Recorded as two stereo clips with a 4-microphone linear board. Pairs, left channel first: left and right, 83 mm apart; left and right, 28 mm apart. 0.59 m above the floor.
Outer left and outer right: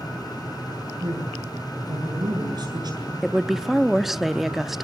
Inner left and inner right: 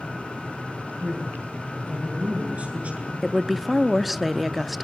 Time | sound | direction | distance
1.0 | a man speaking | 60° right (ahead or behind) | 8.5 m
3.2 | a woman speaking | 5° right (ahead or behind) | 0.8 m